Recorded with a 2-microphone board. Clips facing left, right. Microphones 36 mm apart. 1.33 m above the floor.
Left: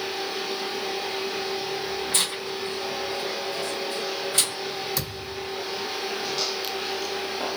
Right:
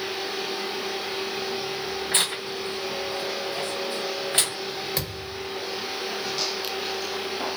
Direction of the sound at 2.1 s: 35° right (ahead or behind).